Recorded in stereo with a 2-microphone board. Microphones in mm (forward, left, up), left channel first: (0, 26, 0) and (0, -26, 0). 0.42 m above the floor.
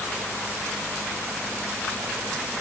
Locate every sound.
Only background noise.